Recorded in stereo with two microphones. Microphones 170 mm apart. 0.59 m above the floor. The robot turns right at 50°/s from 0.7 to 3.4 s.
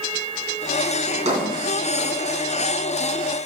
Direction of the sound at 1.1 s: 50° right (ahead or behind).